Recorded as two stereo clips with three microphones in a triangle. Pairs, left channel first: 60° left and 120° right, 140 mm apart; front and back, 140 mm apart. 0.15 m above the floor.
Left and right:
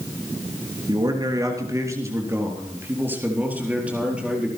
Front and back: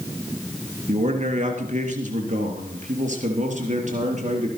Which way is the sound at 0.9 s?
175° right.